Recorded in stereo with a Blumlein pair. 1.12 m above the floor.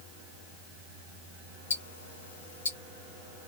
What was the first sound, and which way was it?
Ticking, 70° left.